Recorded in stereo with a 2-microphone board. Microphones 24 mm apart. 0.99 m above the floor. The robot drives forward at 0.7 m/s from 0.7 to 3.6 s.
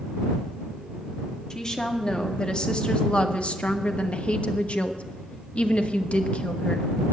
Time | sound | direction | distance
1.5 | a woman speaking | 30° left (ahead or behind) | 2 m